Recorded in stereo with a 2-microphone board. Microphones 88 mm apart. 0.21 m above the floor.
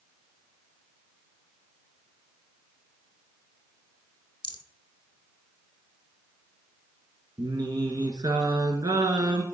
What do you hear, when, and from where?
4.4 s a rattle: 55° left (ahead or behind), 0.6 m
7.4 s singing: 50° right (ahead or behind), 1.4 m